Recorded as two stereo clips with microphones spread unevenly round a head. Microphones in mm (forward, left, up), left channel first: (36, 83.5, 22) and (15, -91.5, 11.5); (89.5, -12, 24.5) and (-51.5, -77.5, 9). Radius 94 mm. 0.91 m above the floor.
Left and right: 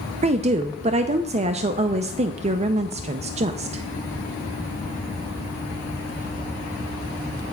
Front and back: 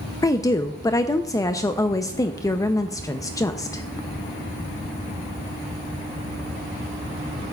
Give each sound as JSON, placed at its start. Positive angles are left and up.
{"t": 0.2, "sound": "a woman speaking", "azimuth_deg": -45, "distance_m": 0.5}